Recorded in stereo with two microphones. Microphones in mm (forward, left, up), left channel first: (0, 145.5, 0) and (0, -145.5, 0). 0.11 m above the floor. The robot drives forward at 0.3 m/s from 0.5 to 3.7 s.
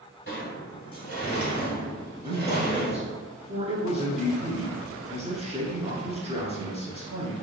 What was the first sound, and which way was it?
A sliding door, 40° left (ahead or behind).